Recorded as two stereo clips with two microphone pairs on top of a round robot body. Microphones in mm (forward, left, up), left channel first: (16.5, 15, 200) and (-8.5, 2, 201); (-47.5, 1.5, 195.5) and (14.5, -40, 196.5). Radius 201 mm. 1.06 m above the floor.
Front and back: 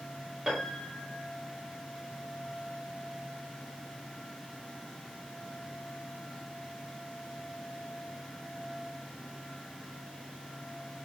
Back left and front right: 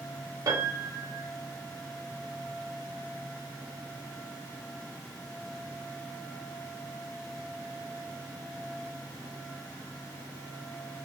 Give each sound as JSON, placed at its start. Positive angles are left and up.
{"t": 0.5, "sound": "a piano", "azimuth_deg": -75, "distance_m": 1.6}